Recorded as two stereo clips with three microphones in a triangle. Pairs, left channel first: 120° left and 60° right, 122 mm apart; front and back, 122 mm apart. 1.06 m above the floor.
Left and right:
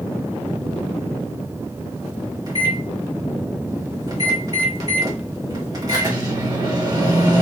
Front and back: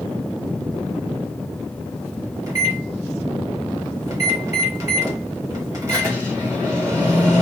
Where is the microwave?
115° right, 1.4 m.